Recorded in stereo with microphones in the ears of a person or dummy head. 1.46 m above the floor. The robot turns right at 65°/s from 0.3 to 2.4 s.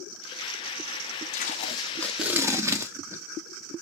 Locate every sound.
1.3 s tape being pulled: 125° left, 1.0 m; by 3.2 s 165° right, 1.0 m